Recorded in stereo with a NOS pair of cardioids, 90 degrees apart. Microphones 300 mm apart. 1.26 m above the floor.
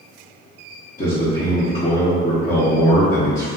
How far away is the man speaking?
About 0.8 m.